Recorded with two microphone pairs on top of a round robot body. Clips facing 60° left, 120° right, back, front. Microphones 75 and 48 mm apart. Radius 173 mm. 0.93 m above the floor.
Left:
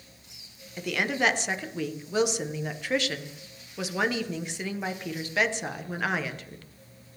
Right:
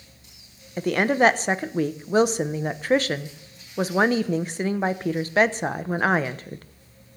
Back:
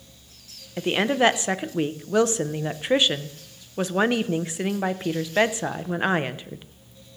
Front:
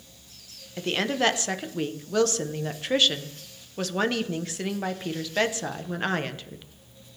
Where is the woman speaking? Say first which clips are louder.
Right 8 dB, back 4 dB; 125° right, 1.0 m.